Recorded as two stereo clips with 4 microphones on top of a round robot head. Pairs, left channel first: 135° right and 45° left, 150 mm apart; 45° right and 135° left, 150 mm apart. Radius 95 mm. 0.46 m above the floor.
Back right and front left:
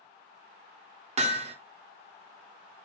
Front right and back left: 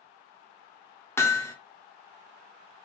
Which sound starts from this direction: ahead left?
Hammering, at 1.2 s.